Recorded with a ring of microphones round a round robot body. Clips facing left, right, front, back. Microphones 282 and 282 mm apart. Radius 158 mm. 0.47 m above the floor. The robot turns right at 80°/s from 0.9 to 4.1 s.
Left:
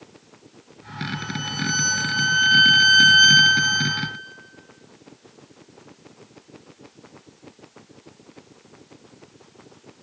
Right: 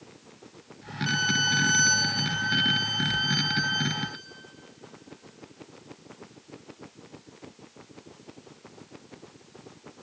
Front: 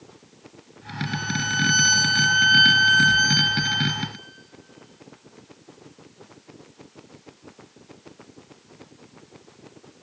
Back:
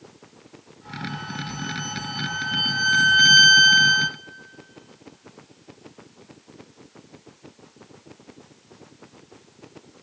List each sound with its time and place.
1.1 s a violin: 65° right, 0.7 m; by 4.2 s 175° left, 0.7 m